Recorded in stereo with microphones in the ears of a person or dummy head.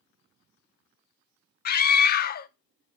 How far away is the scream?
About 0.6 m.